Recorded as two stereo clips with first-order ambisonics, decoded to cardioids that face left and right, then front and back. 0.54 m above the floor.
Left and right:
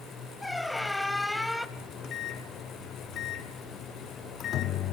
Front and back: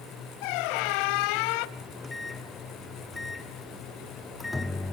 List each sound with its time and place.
0.4 s a squeak: straight ahead, 1.0 m
1.8 s a microwave: 80° left, 0.8 m